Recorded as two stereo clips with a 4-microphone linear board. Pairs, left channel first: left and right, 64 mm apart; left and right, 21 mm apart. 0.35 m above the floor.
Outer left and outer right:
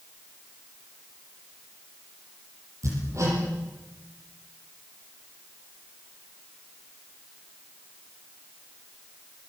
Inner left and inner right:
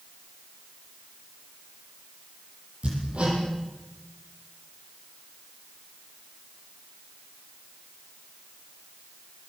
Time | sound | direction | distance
2.8 | hammering | 50° right (ahead or behind) | 8 m